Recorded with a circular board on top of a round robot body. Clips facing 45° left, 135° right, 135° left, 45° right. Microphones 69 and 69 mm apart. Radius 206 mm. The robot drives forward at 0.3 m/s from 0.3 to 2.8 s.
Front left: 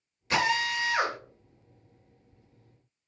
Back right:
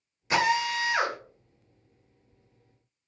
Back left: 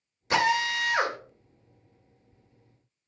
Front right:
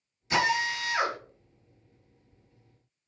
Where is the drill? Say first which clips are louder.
Back right 2 dB, back left 2 dB; 150° left, 1.9 m; by 1.2 s 155° left, 2 m.